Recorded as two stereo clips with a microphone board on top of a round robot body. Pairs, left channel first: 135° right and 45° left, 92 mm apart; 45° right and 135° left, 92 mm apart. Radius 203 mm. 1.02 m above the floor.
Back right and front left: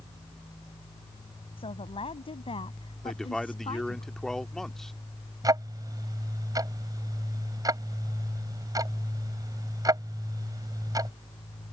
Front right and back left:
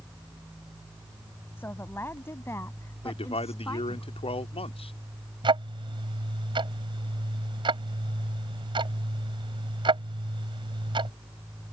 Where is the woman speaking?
110° right; by 4.0 s 100° right.